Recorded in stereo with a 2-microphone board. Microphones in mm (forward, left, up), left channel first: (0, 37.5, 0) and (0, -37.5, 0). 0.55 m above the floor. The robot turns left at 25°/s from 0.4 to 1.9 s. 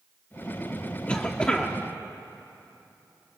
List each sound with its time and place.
1.1 s a cough: 15° left (ahead or behind), 1.0 m; by 1.8 s 10° left (ahead or behind), 1.0 m